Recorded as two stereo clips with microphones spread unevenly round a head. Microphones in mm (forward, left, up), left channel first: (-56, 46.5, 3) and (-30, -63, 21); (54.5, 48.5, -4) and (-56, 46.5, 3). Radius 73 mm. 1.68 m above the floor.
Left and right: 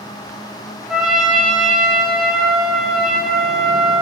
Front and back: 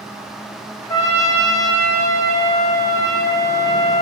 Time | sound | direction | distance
0.9 | a trumpet | 20° right | 0.9 m